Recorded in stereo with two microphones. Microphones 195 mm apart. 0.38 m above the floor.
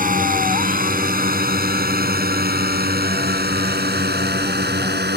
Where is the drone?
45° right (ahead or behind); by 5.2 s 60° right (ahead or behind).